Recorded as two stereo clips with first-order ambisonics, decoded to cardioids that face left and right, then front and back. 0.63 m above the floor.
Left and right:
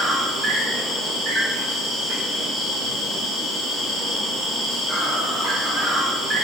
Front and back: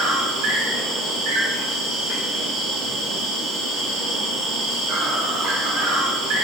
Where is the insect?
165° right, 1.4 m.